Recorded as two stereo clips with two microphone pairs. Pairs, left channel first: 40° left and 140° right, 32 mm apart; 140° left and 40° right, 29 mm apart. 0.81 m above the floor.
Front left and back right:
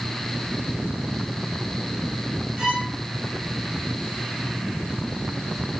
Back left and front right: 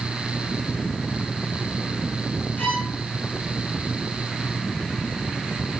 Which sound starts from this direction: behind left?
A violin, at 2.6 s.